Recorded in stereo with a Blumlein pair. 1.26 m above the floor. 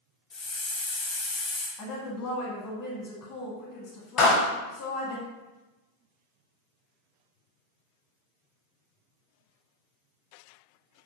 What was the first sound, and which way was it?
A hiss, 25° left.